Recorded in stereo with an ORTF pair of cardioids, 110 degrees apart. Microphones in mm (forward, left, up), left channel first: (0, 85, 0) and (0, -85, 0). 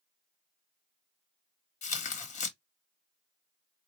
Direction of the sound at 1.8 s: 45° left.